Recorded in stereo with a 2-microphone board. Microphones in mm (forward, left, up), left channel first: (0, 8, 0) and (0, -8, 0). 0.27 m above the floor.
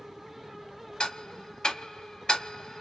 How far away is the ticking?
About 0.7 m.